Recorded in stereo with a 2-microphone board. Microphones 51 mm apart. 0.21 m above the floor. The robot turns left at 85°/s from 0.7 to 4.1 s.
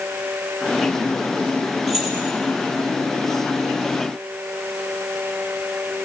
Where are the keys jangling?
5° left (ahead or behind), 4.5 m; by 2.1 s 20° right (ahead or behind), 4.5 m.